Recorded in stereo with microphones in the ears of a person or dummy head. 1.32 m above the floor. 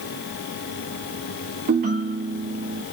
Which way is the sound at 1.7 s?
50° right (ahead or behind).